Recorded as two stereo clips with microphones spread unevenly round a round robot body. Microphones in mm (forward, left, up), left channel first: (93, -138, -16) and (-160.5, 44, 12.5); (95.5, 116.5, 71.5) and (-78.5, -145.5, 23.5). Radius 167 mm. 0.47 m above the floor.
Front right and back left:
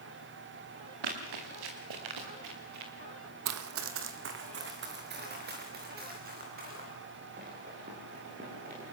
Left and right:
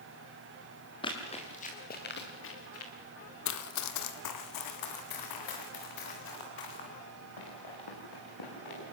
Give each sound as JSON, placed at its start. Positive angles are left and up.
{"t": 1.0, "sound": "running footsteps", "azimuth_deg": 130, "distance_m": 5.0}
{"t": 3.5, "sound": "running footsteps", "azimuth_deg": 105, "distance_m": 1.1}